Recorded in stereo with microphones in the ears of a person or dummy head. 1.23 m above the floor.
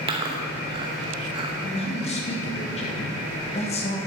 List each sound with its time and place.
0.1 s chewing: 25° right (ahead or behind), 1.0 m
1.6 s a man speaking: 30° left (ahead or behind), 1.2 m